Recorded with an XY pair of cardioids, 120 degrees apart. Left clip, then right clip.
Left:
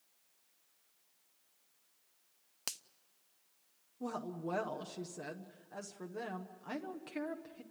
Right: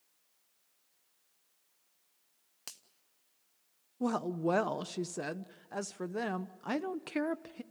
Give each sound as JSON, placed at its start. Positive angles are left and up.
{"t": 2.7, "sound": "a finger snap", "azimuth_deg": 35, "distance_m": 0.5}
{"t": 4.0, "sound": "a woman speaking", "azimuth_deg": -50, "distance_m": 0.6}